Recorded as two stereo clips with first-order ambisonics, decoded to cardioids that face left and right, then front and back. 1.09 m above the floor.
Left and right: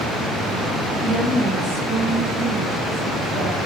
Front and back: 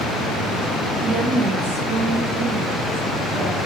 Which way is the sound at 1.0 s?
155° left.